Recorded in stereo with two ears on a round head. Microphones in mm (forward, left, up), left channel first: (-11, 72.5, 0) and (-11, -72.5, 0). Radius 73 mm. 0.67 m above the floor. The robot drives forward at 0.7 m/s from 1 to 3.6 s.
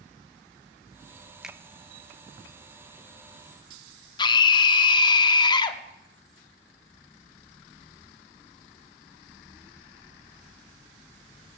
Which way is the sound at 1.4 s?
5° right (ahead or behind).